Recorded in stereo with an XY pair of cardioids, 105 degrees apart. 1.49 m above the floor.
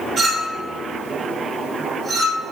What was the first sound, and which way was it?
A clink, 55° right.